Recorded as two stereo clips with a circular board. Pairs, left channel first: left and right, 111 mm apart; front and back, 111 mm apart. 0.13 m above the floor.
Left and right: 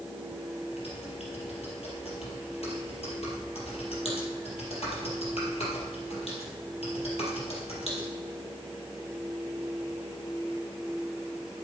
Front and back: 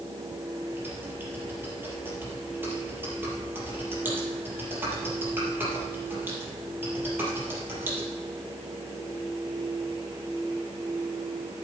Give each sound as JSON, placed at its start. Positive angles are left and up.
{"t": 0.7, "sound": "typing on a keyboard", "azimuth_deg": 110, "distance_m": 4.0}